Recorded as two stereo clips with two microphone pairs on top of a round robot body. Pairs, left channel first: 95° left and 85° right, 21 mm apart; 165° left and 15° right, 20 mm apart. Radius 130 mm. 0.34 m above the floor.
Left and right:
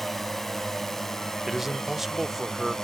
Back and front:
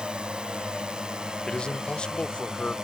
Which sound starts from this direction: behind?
A man speaking, at 1.5 s.